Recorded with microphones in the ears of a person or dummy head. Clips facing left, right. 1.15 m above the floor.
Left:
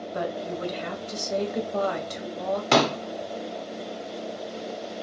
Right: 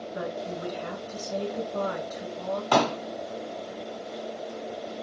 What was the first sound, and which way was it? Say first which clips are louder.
A woman speaking: left 3 dB; 70° left (ahead or behind).